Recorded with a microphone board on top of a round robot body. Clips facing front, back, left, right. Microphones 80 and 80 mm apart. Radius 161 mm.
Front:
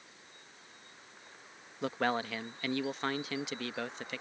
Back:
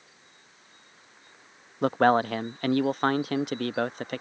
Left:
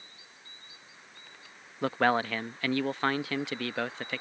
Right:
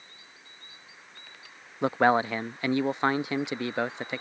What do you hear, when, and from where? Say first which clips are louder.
1.8 s a man speaking: back 11 dB, right 4 dB; 160° right